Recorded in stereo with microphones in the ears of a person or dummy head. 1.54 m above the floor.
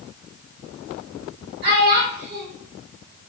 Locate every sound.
1.6 s a child speaking: 50° right (ahead or behind), 1.6 m